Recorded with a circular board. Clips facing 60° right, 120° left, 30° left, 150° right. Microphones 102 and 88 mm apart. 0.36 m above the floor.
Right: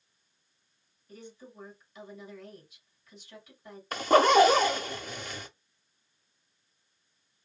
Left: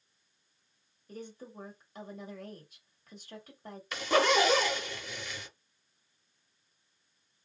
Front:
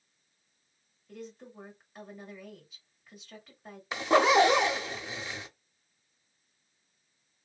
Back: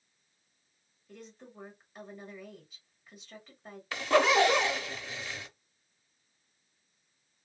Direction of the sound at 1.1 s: 120° left.